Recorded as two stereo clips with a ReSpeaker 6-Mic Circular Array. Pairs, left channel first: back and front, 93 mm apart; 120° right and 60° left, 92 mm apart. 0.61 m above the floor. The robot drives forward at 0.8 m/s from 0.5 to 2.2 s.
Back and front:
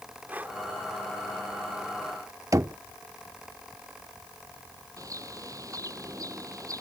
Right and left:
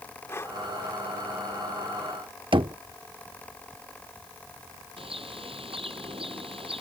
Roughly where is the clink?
I don't hear a clink.